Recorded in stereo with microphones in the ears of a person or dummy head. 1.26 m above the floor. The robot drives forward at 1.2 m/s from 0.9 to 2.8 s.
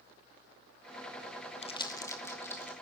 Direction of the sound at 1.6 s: 30° left (ahead or behind).